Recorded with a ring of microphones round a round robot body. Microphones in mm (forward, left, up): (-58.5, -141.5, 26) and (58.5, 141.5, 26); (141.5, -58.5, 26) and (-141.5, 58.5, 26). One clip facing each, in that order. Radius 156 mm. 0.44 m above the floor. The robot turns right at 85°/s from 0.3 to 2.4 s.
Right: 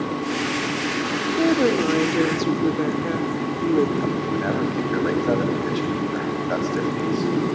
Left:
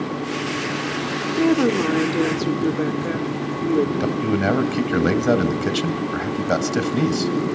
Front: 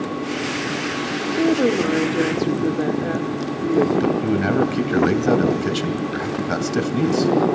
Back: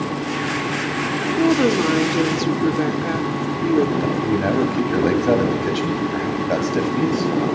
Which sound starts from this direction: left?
A woman speaking, at 1.4 s.